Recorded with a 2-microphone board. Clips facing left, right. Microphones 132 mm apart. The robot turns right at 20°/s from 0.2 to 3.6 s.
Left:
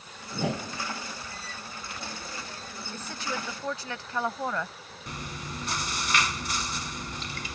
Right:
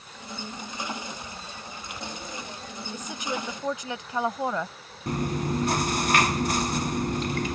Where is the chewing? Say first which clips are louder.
Right 12 dB; 50° right (ahead or behind).